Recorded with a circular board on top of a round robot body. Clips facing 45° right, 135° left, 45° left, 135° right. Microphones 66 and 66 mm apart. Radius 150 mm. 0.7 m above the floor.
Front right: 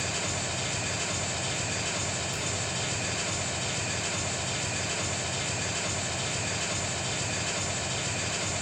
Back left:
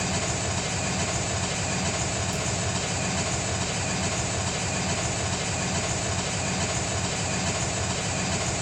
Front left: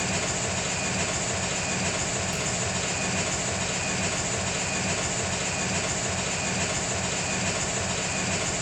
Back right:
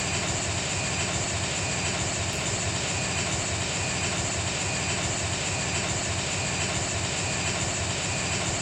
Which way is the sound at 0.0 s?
125° left.